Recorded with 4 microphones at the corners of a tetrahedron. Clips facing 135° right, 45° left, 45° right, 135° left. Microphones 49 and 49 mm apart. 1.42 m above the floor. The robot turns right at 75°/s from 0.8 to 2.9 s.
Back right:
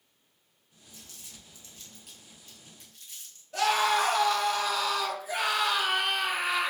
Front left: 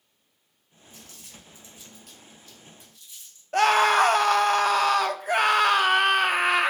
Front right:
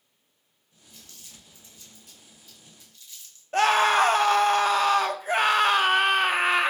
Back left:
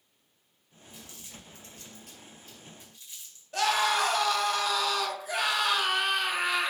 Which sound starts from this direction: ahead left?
Crumpling, at 0.9 s.